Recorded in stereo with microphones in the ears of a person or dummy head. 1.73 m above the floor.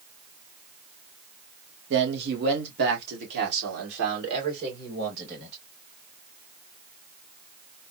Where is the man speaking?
65° right (ahead or behind), 1.0 m.